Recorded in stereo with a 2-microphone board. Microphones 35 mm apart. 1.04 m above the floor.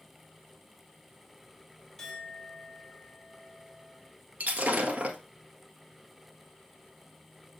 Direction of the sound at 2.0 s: 5° left (ahead or behind).